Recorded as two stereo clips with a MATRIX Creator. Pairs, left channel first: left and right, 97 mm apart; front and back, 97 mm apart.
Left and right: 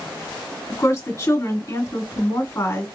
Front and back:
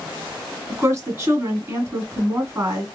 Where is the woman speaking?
135° left, 1.7 m.